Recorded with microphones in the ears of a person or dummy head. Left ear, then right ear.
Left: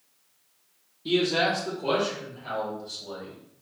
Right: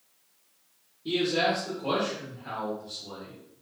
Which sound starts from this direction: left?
A man speaking, at 1.1 s.